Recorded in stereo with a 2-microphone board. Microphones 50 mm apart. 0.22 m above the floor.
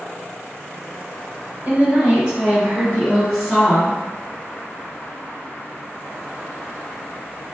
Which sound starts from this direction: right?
A woman speaking, at 1.6 s.